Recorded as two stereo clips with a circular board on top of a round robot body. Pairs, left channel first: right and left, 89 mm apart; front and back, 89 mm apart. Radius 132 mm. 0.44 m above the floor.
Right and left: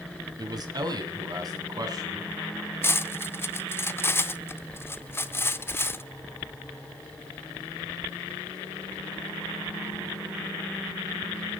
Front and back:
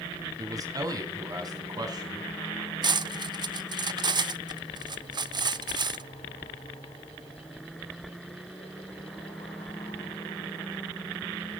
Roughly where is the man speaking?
Behind left.